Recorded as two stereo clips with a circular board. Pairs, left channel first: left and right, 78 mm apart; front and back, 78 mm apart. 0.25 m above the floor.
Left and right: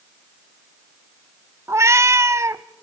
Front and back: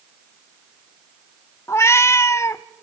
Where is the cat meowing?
50° right, 0.5 m.